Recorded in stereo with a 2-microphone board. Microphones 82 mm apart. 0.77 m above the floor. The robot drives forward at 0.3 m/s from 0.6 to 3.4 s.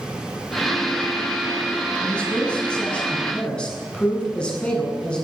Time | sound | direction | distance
2.0 | a man speaking | 15° left (ahead or behind) | 7 m